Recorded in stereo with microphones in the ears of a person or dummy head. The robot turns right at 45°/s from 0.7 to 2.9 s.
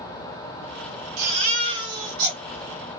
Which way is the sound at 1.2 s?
75° right.